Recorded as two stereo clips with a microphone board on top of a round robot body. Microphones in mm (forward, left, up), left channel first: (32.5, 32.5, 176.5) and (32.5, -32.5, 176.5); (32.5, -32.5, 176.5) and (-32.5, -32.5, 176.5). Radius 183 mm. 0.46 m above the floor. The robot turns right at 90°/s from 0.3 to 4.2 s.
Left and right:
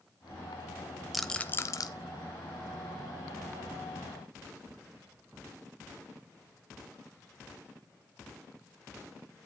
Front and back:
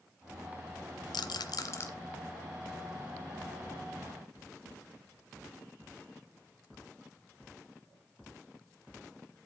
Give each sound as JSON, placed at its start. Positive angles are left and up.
{"t": 1.1, "sound": "a rattle", "azimuth_deg": -5, "distance_m": 0.5}